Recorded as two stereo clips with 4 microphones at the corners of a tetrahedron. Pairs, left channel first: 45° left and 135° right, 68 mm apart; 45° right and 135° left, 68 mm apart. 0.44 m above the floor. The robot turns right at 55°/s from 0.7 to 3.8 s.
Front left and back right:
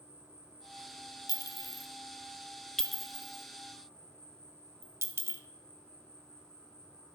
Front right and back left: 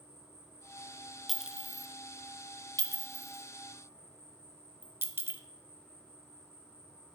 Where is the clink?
45° left, 0.6 m; by 5.4 s 175° right, 0.6 m.